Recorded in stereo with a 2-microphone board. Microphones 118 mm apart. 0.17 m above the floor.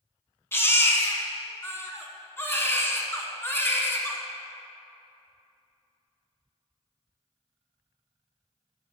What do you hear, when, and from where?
0.5 s a baby crying: 20° left (ahead or behind), 0.9 m